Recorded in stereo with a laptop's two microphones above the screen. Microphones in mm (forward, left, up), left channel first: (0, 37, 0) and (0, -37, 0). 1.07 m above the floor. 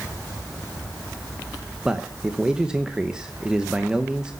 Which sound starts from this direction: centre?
A man speaking, at 1.9 s.